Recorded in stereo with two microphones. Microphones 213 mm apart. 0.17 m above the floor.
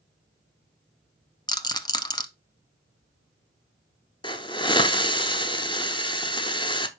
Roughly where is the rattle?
Centre.